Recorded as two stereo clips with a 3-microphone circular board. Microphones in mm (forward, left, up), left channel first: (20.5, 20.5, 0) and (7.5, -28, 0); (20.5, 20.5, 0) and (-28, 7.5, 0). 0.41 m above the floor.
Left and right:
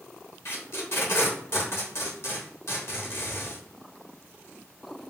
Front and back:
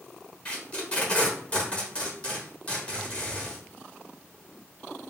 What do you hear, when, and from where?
0.5 s tape being pulled: 75° left, 0.8 m